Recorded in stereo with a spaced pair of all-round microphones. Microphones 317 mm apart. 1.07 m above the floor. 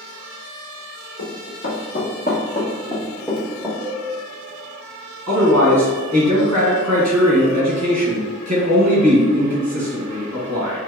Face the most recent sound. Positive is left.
turn(degrees=-60)  # may be behind; listen again after turning